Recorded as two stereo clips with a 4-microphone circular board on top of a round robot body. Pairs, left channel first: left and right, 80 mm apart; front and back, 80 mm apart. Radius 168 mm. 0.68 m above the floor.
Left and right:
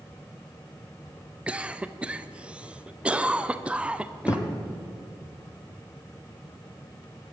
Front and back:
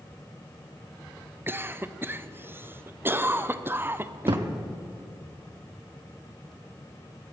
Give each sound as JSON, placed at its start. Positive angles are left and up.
{"t": 1.5, "sound": "a cough", "azimuth_deg": -150, "distance_m": 0.7}
{"t": 4.3, "sound": "a thud", "azimuth_deg": 150, "distance_m": 0.6}